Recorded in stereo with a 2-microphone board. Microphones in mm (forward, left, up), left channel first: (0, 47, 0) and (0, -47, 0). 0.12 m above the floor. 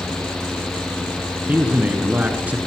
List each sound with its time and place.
1.5 s a man speaking: 15° right (ahead or behind), 2.0 m